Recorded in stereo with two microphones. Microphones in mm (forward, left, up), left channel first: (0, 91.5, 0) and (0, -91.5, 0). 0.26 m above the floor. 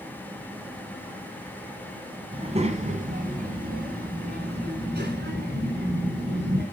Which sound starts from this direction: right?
A child speaking, at 2.3 s.